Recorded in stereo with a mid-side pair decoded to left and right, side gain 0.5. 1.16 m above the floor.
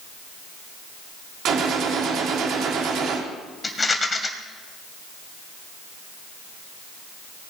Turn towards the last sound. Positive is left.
turn(degrees=25)